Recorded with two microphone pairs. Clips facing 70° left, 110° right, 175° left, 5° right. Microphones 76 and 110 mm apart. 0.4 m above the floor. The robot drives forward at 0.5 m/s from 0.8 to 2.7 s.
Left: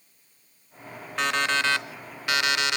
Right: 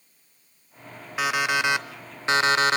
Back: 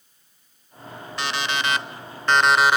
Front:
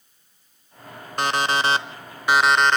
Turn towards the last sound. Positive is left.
turn(degrees=-105)